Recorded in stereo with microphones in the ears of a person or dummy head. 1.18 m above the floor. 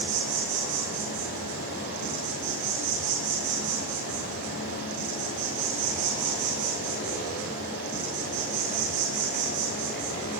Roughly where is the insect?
Right.